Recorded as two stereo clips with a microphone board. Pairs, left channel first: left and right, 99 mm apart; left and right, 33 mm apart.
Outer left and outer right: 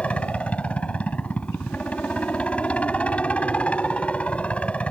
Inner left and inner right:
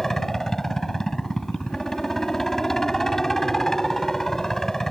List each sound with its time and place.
0.0 s a helicopter: 15° left (ahead or behind)